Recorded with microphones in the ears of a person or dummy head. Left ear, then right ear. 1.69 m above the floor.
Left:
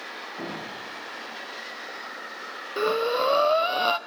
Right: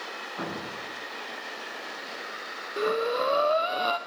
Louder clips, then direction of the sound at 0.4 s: Even; 70° right (ahead or behind).